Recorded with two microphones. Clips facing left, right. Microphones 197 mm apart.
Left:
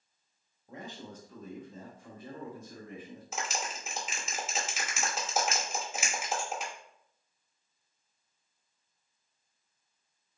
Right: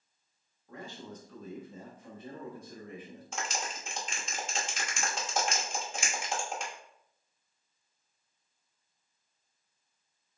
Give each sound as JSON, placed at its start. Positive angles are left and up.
{"t": 0.7, "sound": "a man speaking", "side_deg": 25, "distance_m": 0.9}
{"t": 3.3, "sound": "a clap", "side_deg": 5, "distance_m": 0.8}